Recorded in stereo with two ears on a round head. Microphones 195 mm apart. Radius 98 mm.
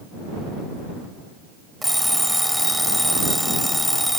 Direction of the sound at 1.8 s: Centre (ahead or behind).